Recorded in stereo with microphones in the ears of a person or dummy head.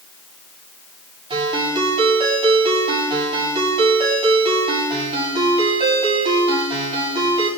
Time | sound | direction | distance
1.3 | a ringtone | 30° right (ahead or behind) | 7.5 m